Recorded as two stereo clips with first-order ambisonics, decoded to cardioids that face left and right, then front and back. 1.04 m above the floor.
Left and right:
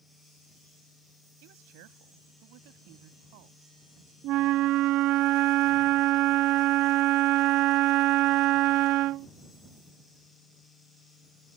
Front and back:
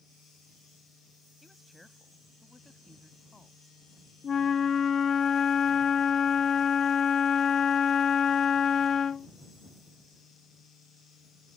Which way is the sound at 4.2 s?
65° right.